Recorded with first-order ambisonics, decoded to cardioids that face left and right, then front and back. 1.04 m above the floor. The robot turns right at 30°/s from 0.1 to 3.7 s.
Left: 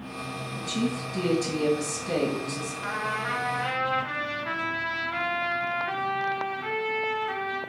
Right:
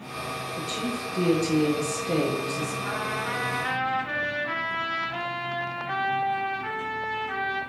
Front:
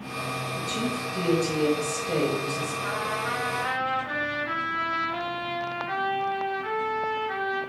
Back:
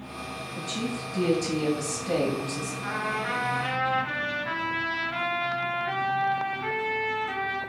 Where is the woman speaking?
80° left, 1.9 m; by 2.7 s 145° left, 1.9 m.